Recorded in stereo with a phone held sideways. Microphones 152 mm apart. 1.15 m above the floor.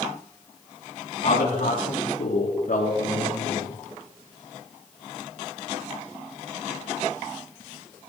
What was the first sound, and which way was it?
A man speaking, 75° left (ahead or behind).